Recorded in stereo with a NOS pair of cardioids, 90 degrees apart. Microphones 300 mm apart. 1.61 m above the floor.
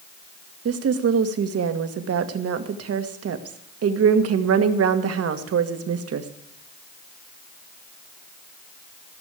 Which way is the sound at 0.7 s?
55° right.